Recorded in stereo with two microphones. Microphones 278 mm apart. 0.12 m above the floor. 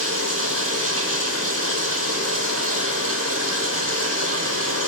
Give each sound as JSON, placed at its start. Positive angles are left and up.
{"t": 0.0, "sound": "running water", "side_deg": -60, "distance_m": 1.3}